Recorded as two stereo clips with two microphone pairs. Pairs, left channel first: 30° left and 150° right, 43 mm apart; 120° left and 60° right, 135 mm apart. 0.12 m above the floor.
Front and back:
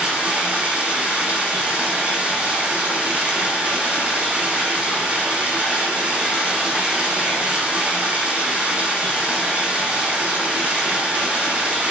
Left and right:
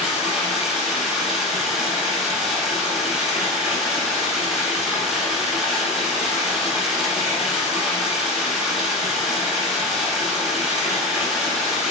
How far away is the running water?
About 1.4 m.